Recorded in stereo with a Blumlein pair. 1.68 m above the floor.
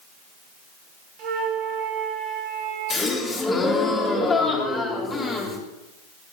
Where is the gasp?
20° left, 3 m.